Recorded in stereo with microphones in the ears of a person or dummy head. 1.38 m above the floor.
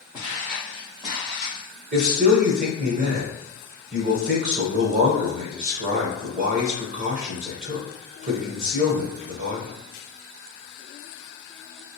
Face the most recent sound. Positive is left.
turn(degrees=-40)  # may be behind; listen again after turning